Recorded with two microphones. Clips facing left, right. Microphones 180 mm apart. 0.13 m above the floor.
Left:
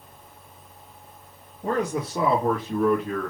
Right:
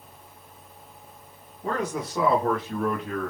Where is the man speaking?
40° left (ahead or behind), 1.7 m; by 3.3 s 5° right (ahead or behind), 1.4 m.